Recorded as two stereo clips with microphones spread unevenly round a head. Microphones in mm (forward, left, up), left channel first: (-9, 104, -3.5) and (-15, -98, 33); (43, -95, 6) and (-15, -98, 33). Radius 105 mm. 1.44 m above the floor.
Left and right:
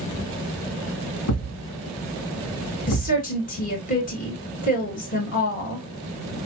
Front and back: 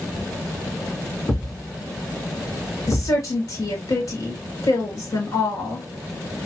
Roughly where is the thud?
Left.